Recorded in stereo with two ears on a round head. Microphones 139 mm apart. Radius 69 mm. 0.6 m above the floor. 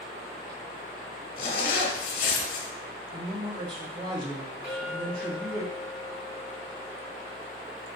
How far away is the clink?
About 2 m.